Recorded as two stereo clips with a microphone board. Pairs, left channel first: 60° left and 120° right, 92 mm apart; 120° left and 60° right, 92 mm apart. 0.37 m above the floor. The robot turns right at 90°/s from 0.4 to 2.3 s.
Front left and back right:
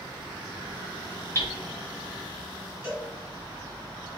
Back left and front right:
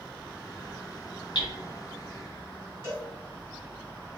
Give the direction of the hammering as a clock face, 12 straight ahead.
8 o'clock.